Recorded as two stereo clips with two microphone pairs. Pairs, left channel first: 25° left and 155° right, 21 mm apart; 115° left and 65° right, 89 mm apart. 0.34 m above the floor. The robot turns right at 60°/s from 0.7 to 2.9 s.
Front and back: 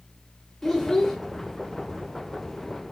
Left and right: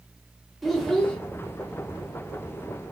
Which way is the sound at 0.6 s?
20° left.